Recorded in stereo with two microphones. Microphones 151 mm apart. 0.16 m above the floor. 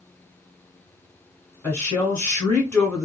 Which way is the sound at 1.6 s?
15° left (ahead or behind).